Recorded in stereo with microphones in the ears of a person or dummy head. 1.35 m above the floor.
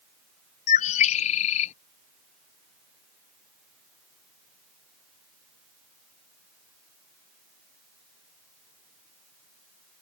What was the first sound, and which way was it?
A bird, 40° left (ahead or behind).